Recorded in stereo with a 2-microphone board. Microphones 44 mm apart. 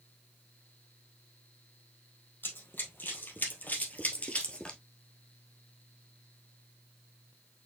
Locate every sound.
2.4 s running footsteps: 50° left (ahead or behind), 2.0 m; by 4.8 s 20° left (ahead or behind), 1.2 m